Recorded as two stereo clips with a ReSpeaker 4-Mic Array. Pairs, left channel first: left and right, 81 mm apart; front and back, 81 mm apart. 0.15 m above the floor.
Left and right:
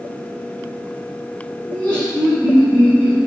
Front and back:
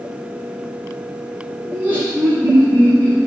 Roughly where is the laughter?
Behind left.